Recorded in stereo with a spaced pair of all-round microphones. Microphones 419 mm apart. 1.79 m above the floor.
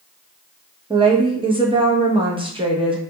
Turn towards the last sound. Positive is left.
turn(degrees=-15)  # may be behind; listen again after turning